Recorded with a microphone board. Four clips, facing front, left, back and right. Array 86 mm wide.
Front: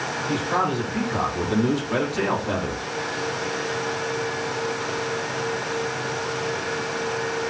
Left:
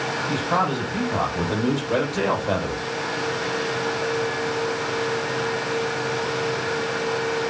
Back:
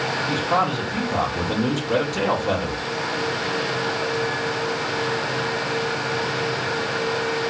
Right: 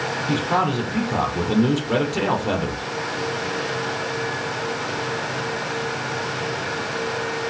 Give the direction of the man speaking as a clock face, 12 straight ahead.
4 o'clock.